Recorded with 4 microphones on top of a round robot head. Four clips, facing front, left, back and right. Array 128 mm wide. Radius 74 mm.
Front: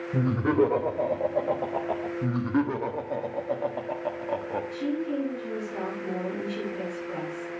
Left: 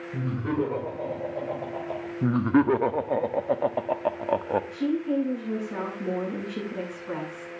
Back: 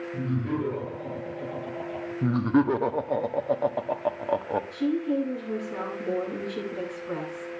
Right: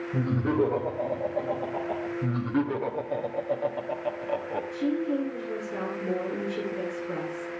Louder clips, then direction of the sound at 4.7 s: Right 3 dB, back 3 dB; 115° left.